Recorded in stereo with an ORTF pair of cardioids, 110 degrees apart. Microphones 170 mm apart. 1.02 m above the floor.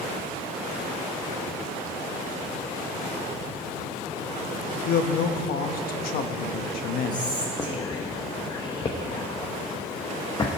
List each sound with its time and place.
4.9 s a man speaking: 65° left, 1.0 m
7.1 s whispering: 25° left, 0.9 m